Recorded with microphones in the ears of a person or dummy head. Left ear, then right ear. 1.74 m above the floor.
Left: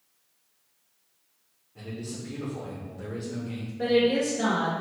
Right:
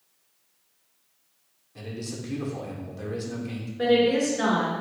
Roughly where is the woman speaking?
Right.